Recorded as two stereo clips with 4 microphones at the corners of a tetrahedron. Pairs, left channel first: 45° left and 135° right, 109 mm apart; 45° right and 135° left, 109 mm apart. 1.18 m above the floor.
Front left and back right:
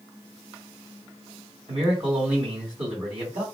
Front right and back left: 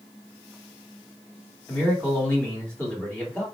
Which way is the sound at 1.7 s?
120° right.